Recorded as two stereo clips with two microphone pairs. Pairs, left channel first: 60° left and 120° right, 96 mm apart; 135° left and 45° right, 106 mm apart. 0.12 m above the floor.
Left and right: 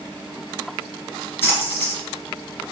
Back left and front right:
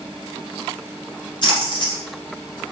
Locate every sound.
1.4 s a splash: 120° left, 1.5 m